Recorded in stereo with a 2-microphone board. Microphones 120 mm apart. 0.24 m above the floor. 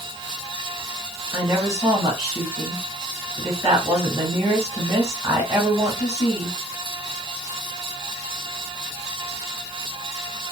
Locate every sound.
1.3 s a woman speaking: 20° right (ahead or behind), 1.1 m